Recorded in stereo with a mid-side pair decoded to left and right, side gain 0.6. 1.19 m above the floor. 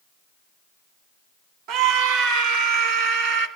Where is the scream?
70° right, 2.5 m; by 3.5 s 75° right, 3.5 m.